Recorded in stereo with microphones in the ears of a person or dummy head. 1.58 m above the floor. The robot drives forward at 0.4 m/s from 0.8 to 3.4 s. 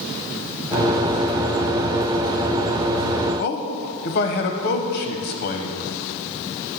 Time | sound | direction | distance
3.4 | a man speaking | 50° left (ahead or behind) | 0.7 m